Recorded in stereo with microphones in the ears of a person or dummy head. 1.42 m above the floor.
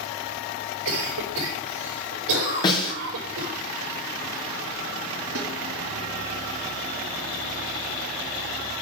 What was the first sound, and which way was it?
A cough, 80° right.